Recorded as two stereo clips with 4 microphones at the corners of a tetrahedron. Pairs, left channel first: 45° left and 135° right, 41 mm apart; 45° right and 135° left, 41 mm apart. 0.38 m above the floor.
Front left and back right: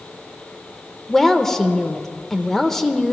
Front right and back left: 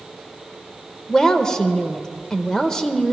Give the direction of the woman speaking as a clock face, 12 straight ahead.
12 o'clock.